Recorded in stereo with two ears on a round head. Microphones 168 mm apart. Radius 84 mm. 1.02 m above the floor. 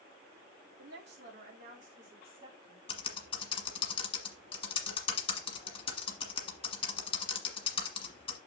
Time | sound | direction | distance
0.8 | a woman speaking | 65° right (ahead or behind) | 2.5 m
2.9 | typing on a keyboard | 30° left (ahead or behind) | 1.6 m